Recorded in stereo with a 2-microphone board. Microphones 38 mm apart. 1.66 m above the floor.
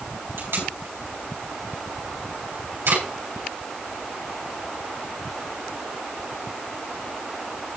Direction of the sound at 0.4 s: 85° right.